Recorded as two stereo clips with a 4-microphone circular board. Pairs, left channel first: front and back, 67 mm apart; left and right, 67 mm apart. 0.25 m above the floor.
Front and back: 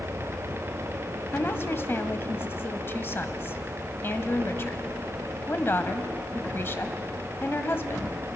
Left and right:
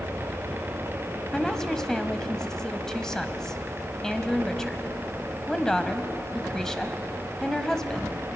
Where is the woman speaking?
15° left, 1.2 m.